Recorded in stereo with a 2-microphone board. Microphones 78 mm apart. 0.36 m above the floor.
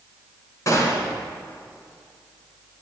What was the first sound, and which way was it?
A gunshot, 40° left (ahead or behind).